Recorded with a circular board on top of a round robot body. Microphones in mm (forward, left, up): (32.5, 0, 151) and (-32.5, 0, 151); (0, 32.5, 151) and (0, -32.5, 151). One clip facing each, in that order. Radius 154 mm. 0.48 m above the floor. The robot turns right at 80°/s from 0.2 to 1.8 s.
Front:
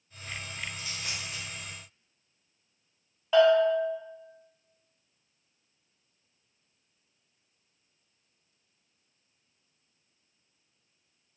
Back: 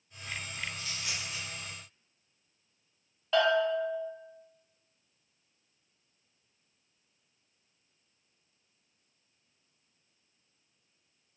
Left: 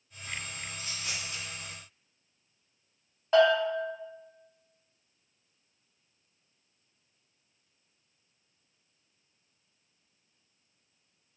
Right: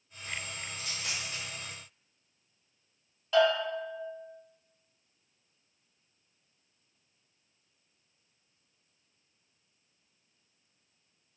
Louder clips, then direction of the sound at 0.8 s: Front 1 dB, right 1 dB; 80° right.